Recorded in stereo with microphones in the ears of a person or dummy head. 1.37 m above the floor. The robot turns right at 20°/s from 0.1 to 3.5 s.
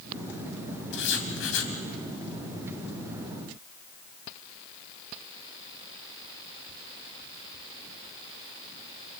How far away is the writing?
About 2.5 m.